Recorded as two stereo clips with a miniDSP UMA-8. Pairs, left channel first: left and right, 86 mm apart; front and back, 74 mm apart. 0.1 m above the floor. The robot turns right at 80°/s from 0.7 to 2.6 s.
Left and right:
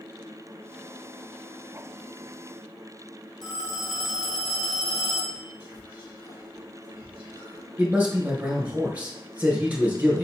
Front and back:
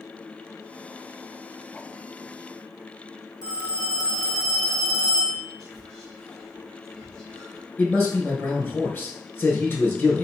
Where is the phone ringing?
10° left, 1.8 m.